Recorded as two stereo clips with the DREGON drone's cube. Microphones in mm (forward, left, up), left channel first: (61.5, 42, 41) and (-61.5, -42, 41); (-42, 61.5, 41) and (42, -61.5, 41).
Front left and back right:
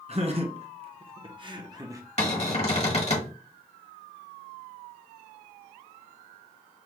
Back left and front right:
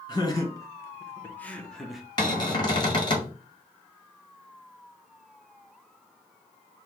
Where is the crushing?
No crushing in this recording.